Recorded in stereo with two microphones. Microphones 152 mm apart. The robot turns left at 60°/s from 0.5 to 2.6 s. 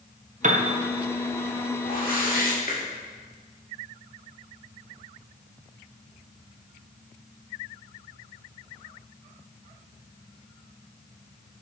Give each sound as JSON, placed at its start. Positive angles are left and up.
{"t": 0.4, "sound": "a piano", "side_deg": -50, "distance_m": 0.8}
{"t": 1.8, "sound": "a whoosh", "azimuth_deg": 105, "distance_m": 1.7}